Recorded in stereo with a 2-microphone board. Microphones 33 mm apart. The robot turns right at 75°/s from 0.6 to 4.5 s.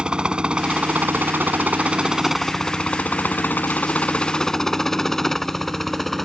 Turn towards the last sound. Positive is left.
turn(degrees=5)  # may be behind; listen again after turning